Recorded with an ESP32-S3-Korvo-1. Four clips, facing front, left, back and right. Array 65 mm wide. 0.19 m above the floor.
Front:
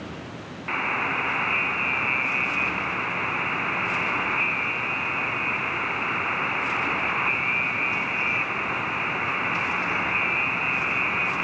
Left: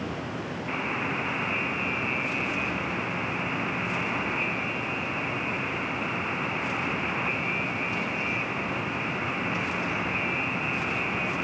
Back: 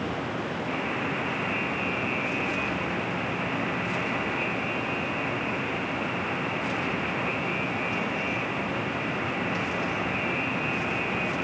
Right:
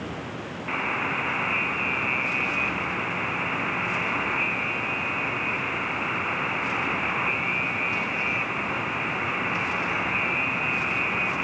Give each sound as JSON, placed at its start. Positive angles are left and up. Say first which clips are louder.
{"t": 0.7, "sound": "a buzzer", "louder": "right 4 dB, front 7 dB", "azimuth_deg": -25, "distance_m": 1.5}